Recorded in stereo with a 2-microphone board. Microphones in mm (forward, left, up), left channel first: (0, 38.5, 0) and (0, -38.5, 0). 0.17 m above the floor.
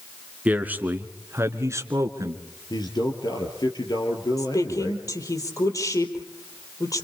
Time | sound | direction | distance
0.5 | a man speaking | 20° right (ahead or behind) | 2.5 m
2.7 | a man speaking | 60° left (ahead or behind) | 4 m
4.4 | a woman speaking | 45° left (ahead or behind) | 4 m